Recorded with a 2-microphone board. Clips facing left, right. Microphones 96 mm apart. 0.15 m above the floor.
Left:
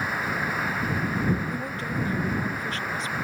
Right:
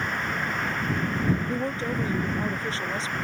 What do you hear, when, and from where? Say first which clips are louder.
0.0 s running water: left 1 dB; 5° left (ahead or behind)
1.5 s a woman speaking: right 3 dB; 35° right (ahead or behind)